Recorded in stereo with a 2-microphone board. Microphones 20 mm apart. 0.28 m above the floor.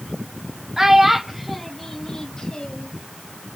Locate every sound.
0.8 s a child speaking: 20° right (ahead or behind), 1.1 m; by 2.9 s 45° left (ahead or behind), 1.0 m